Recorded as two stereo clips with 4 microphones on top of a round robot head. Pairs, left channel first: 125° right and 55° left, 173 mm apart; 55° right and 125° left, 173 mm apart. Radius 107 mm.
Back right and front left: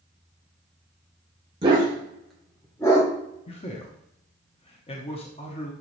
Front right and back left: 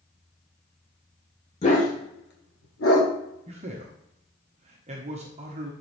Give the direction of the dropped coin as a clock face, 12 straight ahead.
I don't hear a dropped coin.